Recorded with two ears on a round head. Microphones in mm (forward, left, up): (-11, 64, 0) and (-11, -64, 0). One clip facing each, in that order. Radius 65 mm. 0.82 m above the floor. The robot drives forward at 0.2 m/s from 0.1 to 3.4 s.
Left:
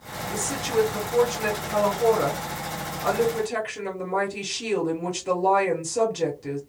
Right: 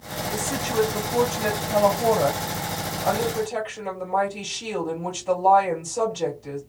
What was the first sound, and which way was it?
A woman speaking, 75° left (ahead or behind).